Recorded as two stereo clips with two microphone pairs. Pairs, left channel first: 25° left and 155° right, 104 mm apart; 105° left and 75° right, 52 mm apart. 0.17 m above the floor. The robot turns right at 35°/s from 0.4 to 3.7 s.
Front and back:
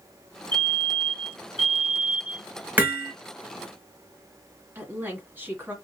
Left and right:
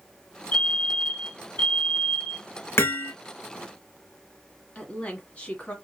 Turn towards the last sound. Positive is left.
turn(degrees=150)